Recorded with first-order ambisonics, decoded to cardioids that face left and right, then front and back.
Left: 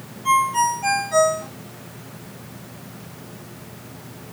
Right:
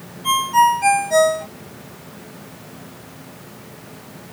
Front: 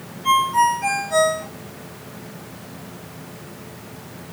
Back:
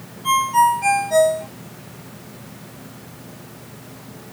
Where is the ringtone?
95° right, 7 m.